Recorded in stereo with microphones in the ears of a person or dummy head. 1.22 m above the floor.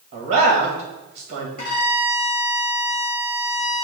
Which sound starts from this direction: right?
A man speaking, at 0.1 s.